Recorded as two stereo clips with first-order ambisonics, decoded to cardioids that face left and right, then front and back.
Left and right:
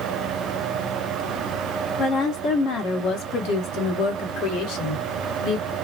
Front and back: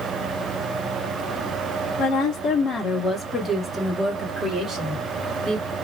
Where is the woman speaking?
40° left, 1.4 m; by 5.7 s 120° left, 2.5 m.